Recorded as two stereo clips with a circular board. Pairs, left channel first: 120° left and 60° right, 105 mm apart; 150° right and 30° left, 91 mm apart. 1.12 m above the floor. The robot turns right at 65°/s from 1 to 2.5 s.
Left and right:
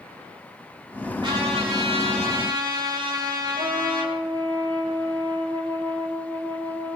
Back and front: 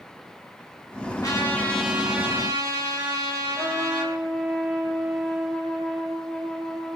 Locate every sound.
1.2 s a trumpet: 105° right, 6.5 m; by 4.1 s 20° right, 6.5 m
3.5 s a trumpet: 55° right, 9.5 m